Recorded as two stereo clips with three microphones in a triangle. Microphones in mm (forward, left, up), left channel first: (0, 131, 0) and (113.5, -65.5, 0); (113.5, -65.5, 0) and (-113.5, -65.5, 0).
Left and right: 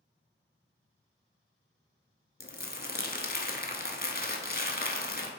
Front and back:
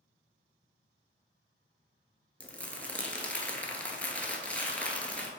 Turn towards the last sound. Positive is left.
turn(degrees=80)